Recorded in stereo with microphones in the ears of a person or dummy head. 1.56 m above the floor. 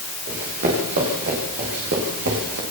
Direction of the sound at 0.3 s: 40° right (ahead or behind).